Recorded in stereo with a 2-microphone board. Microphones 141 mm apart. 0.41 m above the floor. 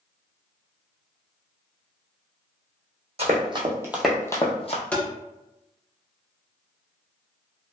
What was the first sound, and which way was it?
Running footsteps, 45° right (ahead or behind).